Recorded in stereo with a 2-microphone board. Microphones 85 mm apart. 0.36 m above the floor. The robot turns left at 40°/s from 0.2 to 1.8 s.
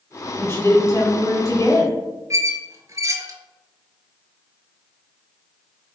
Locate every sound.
0.4 s a woman speaking: 135° left, 1.2 m; by 1.9 s 80° left, 1.2 m
2.3 s a squeak: 40° right (ahead or behind), 0.6 m